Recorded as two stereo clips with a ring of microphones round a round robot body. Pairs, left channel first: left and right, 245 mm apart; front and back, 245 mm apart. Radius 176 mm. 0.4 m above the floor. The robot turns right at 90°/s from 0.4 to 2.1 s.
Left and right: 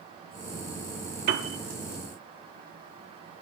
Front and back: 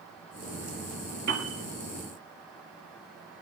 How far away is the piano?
About 1.2 m.